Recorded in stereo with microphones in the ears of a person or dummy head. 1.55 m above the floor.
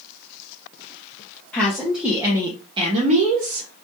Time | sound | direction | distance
1.5 | a woman speaking | 10° left (ahead or behind) | 1.2 m